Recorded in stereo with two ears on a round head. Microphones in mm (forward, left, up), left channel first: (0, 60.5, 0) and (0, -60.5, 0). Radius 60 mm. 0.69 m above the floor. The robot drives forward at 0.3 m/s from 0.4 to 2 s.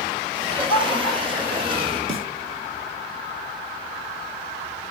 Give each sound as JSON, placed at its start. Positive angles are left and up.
{"t": 0.4, "sound": "laughter", "side_deg": -40, "distance_m": 3.5}
{"t": 2.1, "sound": "a snare drum", "side_deg": -45, "distance_m": 1.7}